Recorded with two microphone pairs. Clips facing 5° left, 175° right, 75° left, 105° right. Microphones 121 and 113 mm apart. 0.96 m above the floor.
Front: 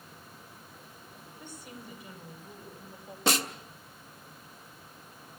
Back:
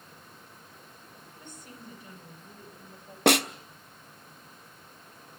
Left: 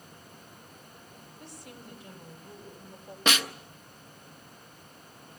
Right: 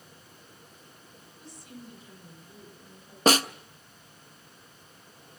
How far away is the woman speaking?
About 4.5 m.